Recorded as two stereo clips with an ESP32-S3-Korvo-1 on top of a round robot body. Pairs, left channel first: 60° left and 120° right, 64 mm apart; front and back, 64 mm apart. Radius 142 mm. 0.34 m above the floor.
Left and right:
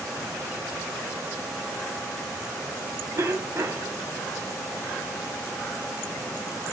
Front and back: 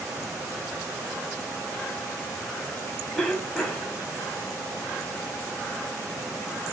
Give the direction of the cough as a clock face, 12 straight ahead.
2 o'clock.